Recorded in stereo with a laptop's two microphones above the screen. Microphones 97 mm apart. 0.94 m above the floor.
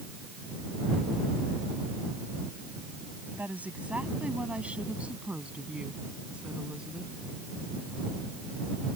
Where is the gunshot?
No gunshot in this recording.